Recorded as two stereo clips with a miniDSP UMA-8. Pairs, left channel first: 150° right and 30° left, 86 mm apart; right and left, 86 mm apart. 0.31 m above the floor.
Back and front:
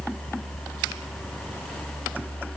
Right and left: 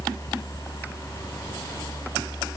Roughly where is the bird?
No bird in this recording.